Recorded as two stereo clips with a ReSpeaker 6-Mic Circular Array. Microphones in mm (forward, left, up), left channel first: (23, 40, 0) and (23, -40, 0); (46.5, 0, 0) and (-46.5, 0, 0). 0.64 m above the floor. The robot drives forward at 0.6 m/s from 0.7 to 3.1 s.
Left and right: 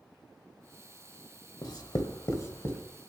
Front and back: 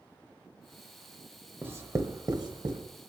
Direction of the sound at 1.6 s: 115° left.